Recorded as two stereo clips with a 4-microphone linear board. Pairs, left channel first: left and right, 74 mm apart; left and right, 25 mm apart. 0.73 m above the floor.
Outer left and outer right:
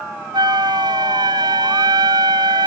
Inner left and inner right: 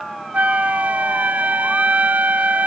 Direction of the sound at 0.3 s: 75° right (ahead or behind).